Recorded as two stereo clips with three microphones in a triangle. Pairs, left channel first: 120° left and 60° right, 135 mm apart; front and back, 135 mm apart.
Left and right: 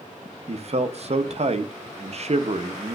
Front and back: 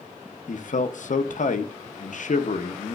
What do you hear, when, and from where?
0.5 s a man speaking: 20° right, 0.6 m